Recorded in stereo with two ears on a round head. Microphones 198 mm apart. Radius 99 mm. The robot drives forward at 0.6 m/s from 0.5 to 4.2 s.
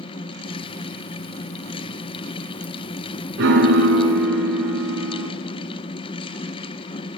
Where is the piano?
60° right (ahead or behind), 2 m; by 5.3 s 70° right (ahead or behind), 1.9 m.